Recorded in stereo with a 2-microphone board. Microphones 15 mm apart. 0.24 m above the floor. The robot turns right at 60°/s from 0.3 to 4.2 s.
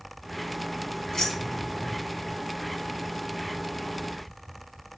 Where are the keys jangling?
40° left (ahead or behind), 1.2 m; by 1.9 s 55° left (ahead or behind), 1.2 m.